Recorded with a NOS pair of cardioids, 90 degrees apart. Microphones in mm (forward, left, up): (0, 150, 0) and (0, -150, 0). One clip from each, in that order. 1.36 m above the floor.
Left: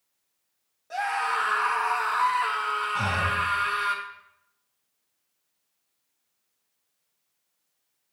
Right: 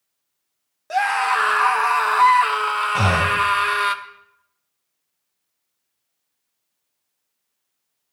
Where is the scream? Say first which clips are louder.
Right 8 dB; 70° right, 1.2 m.